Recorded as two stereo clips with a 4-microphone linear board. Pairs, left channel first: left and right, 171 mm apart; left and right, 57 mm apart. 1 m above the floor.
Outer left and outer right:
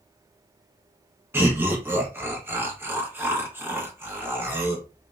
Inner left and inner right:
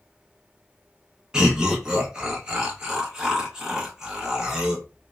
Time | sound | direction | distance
1.3 | laughter | 15° right (ahead or behind) | 0.8 m